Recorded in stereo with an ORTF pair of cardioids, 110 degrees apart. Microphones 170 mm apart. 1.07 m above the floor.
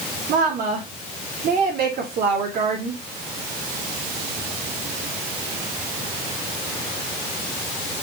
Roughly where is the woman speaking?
Ahead right.